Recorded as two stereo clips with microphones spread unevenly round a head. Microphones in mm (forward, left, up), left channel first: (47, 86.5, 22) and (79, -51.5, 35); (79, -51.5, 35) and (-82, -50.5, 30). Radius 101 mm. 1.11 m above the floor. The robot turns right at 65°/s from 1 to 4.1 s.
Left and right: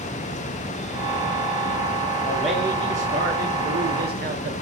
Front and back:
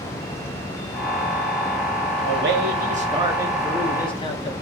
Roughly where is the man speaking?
Behind.